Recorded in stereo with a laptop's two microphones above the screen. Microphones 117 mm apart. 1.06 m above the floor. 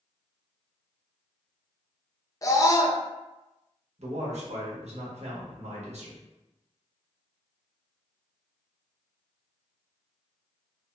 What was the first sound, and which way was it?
A scream, 30° left (ahead or behind).